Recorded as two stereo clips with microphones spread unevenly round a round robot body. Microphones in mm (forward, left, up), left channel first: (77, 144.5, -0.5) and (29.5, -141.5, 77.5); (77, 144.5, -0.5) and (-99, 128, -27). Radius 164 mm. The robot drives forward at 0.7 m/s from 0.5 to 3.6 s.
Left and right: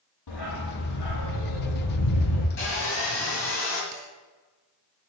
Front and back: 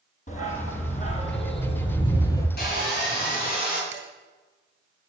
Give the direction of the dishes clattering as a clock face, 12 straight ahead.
6 o'clock.